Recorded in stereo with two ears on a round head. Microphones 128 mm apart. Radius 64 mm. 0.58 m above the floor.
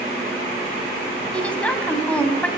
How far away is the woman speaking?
About 3.5 m.